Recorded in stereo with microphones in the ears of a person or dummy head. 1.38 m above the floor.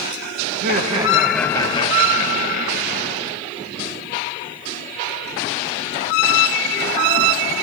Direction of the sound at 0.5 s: 50° right (ahead or behind).